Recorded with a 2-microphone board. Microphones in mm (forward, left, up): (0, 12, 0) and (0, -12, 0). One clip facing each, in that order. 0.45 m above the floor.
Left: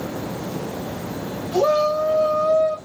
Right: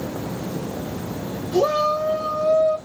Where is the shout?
20° left (ahead or behind), 2.5 m; by 2.8 s 40° left (ahead or behind), 3 m.